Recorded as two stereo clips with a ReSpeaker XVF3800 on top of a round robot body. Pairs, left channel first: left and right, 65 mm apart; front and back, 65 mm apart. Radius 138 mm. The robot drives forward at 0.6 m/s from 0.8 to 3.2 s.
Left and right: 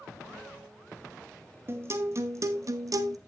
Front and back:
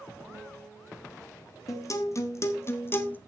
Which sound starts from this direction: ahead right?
A guitar, at 1.7 s.